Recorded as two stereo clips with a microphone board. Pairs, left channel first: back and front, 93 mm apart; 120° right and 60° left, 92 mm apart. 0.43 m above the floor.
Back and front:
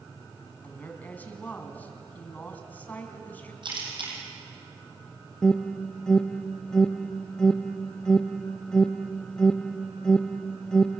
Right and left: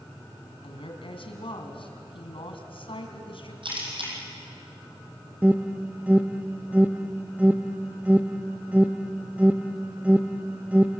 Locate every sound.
0.6 s a woman speaking: 110° right, 3.5 m
3.6 s a camera shutter: 30° left, 7 m
5.4 s an alarm: 110° left, 0.6 m